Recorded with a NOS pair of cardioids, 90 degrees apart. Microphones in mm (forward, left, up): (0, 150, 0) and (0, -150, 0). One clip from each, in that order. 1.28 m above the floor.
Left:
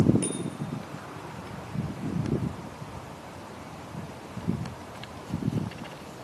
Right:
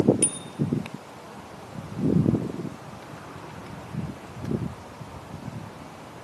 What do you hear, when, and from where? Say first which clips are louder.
0.2 s a bicycle bell: right 3 dB; 60° right, 3 m